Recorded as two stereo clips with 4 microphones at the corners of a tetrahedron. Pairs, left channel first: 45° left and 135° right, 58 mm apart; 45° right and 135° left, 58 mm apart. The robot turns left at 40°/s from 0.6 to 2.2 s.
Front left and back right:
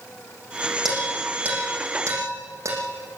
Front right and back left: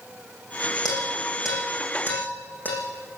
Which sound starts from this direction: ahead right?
Dishes clattering, at 0.8 s.